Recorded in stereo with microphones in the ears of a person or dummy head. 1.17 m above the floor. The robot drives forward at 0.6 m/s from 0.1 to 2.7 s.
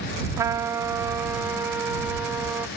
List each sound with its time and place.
0.4 s a trumpet: 10° right (ahead or behind); by 2.7 s 5° right (ahead or behind)